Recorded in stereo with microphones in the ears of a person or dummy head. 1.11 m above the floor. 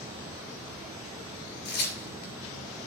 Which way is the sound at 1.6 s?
55° left (ahead or behind).